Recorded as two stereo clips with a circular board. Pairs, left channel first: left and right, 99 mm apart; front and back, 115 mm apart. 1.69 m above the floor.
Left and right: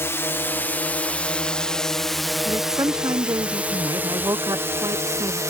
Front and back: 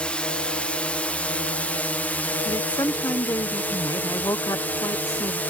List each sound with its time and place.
0.0 s a drone: 70° left; by 5.5 s 65° right
2.5 s a woman speaking: 50° right